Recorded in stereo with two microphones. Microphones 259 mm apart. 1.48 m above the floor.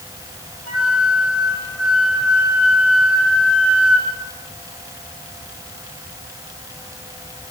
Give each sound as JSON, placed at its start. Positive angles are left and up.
{"t": 0.7, "sound": "a flute", "side_deg": -65, "distance_m": 7.5}